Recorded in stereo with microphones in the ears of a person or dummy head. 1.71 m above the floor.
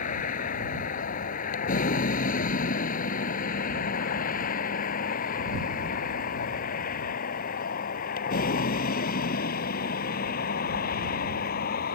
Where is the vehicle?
55° left (ahead or behind); by 11.9 s 60° left (ahead or behind).